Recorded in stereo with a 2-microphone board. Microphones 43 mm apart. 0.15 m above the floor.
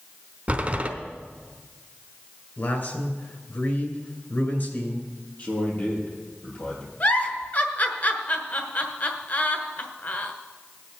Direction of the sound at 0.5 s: 30° right (ahead or behind).